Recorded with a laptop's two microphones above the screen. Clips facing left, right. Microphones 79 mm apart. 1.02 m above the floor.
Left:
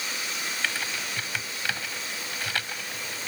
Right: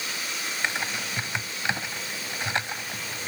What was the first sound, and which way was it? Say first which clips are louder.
Typing on a keyboard: right 3 dB; 25° right (ahead or behind).